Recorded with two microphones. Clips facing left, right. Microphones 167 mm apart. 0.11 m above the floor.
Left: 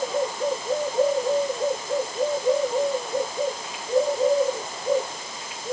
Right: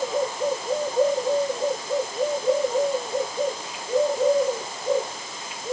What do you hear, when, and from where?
Only background noise.